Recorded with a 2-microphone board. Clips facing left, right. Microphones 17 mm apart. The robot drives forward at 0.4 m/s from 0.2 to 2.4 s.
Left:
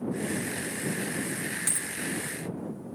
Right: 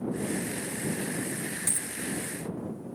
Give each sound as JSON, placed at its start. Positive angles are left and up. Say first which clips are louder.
{"t": 1.7, "sound": "a dropped coin", "louder": "left 1 dB", "side_deg": 35}